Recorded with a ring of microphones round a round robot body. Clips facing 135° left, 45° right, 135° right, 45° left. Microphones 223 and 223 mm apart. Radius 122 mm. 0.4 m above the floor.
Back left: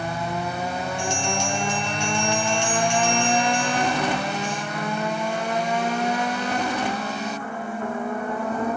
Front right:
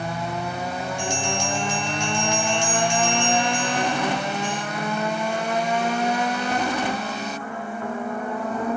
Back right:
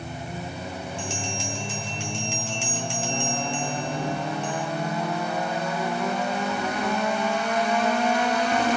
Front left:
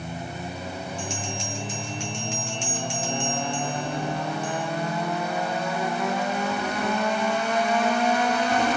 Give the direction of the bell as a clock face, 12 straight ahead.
1 o'clock.